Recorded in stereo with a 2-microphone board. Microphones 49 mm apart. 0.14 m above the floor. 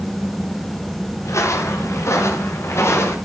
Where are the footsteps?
70° left (ahead or behind), 7.5 m; by 3.2 s 55° left (ahead or behind), 8 m.